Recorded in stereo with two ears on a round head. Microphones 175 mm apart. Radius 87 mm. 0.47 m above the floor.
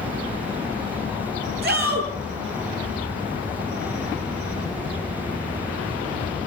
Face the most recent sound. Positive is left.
turn(degrees=-55)  # may be behind; listen again after turning